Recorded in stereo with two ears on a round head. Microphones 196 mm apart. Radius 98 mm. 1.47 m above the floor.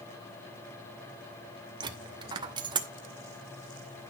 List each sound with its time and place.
1.8 s a dropped coin: 20° right (ahead or behind), 0.9 m